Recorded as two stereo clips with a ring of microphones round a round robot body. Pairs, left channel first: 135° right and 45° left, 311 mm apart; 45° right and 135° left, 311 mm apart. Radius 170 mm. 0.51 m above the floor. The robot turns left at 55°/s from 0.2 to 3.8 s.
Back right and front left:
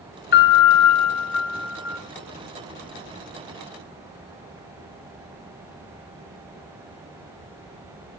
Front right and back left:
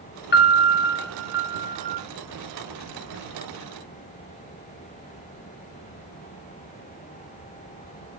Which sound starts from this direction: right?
A piano, at 0.3 s.